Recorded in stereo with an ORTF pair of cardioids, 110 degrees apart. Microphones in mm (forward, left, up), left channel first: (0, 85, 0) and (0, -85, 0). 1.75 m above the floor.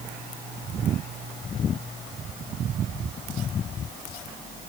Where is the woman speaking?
I don't hear a woman speaking.